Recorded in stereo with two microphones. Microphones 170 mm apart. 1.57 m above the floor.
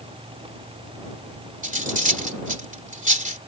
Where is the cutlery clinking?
50° right (ahead or behind).